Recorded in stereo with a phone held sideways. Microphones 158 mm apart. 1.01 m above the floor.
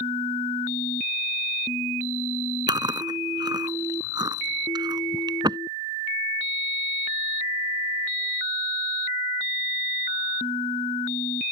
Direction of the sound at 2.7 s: 25° right (ahead or behind).